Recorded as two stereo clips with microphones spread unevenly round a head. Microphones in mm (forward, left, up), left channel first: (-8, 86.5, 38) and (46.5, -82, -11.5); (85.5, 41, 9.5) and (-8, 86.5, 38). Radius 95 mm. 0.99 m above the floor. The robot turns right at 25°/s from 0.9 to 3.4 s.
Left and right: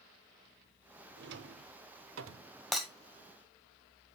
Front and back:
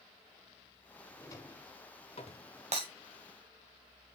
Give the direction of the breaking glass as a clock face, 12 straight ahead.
6 o'clock.